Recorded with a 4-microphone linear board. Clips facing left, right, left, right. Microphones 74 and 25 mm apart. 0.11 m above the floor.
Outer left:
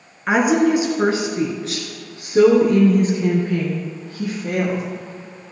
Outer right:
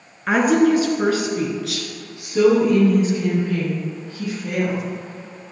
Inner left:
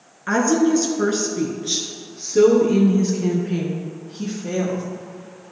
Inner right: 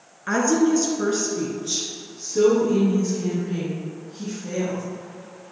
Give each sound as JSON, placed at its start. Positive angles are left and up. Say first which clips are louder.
{"t": 0.3, "sound": "a woman speaking", "louder": "even, inner left 2 dB", "side_deg": 10, "distance_m": 1.2}